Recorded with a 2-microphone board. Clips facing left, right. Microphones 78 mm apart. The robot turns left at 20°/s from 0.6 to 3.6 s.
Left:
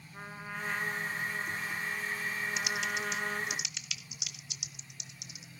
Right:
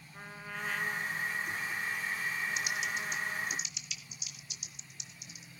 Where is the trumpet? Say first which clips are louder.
Left 2 dB; 165° left, 1.7 m; by 3.6 s 105° left, 1.7 m.